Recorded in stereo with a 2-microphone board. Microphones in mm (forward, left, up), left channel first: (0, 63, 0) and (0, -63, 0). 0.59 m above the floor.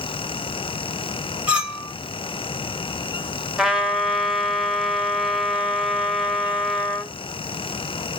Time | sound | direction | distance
1.5 | a clink | 10° right (ahead or behind) | 1.3 m
3.6 | a trumpet | 5° right (ahead or behind) | 0.8 m